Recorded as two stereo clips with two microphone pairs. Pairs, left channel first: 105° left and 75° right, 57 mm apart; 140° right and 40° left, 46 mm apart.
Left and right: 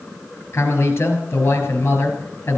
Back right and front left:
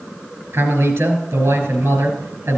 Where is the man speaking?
60° left, 4 m.